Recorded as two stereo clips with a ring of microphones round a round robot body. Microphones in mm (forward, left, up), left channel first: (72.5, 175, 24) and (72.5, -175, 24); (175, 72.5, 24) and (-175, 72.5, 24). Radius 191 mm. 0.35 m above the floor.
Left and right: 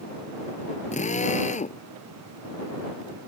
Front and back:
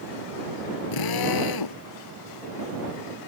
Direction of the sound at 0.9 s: 20° left.